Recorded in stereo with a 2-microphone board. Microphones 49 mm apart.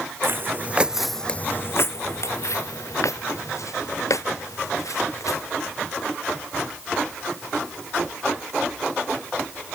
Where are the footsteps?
50° right (ahead or behind); by 5.4 s 85° left.